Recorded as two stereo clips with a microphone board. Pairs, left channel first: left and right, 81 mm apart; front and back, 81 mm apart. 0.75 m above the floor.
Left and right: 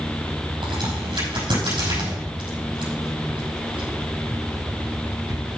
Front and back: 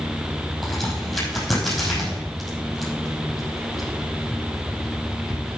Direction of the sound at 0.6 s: 90° right.